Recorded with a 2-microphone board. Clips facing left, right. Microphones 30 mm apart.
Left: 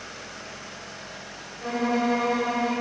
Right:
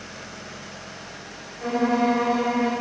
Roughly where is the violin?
Centre.